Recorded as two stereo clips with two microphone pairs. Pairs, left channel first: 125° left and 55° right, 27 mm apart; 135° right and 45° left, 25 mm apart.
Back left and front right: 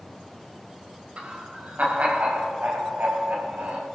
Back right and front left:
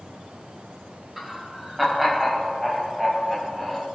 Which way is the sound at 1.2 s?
40° right.